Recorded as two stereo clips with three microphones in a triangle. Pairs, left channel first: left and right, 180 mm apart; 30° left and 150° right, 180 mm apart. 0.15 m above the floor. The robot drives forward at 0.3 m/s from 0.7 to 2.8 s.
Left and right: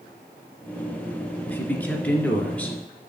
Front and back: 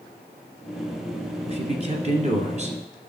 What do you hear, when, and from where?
1.5 s a man speaking: 170° left, 1.8 m